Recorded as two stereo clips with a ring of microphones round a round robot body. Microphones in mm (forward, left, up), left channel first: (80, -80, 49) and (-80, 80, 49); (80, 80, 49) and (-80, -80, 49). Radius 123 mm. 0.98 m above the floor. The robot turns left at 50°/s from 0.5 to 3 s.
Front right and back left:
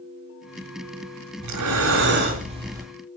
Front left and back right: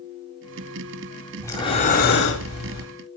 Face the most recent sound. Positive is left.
turn(degrees=45)